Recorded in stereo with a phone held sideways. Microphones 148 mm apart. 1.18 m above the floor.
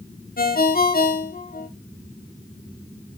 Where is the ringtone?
70° left (ahead or behind), 0.8 m.